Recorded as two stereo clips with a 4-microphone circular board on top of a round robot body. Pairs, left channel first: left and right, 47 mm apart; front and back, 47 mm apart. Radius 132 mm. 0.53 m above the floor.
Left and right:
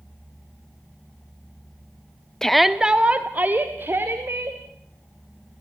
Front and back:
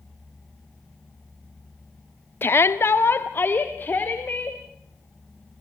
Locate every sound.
2.4 s a shout: 15° left, 1.0 m; by 4.6 s 55° right, 3 m